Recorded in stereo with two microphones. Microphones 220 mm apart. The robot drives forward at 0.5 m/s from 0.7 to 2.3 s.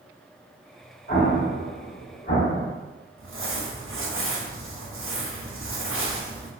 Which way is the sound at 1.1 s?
50° left (ahead or behind).